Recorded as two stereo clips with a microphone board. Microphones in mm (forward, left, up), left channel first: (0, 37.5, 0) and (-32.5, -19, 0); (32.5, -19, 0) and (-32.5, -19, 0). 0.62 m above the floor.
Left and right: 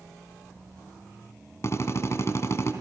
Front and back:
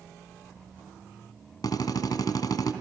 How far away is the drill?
About 3.5 m.